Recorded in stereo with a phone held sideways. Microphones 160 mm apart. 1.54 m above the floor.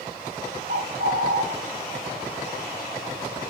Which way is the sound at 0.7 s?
80° right.